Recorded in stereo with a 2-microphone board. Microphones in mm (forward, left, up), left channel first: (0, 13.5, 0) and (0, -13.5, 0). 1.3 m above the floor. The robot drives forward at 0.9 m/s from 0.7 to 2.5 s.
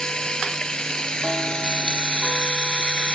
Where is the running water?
30° left (ahead or behind); by 3.2 s 40° left (ahead or behind).